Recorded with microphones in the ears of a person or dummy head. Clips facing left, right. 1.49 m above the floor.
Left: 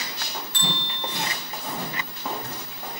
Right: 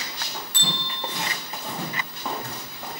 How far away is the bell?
About 4.5 m.